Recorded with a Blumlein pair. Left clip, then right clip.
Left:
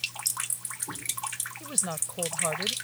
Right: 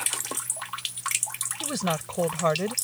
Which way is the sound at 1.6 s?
65° right.